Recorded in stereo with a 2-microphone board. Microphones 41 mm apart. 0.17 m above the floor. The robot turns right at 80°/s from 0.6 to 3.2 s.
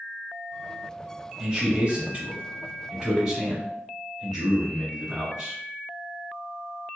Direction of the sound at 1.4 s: 170° right.